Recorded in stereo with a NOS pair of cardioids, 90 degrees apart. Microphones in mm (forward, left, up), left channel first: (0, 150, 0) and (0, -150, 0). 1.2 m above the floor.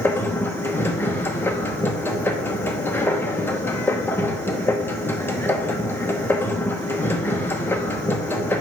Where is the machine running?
5° left, 1.0 m.